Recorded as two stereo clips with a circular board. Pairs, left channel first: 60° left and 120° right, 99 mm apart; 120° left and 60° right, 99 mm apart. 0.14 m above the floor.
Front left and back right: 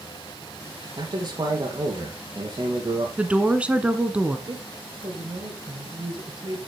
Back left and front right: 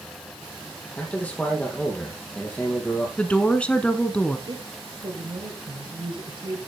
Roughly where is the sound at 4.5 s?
Right.